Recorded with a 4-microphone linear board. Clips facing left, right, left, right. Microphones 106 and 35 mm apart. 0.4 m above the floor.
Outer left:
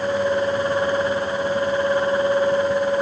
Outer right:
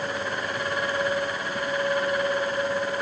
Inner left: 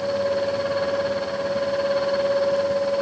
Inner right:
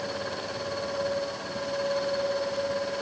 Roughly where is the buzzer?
I don't hear a buzzer.